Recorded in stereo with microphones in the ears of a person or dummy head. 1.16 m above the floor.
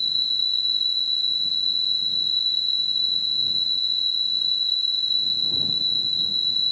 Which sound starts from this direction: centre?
An insect, at 0.0 s.